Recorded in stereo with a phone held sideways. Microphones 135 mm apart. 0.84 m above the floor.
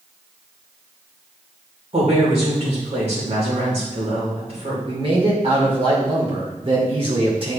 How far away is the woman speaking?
About 3.5 m.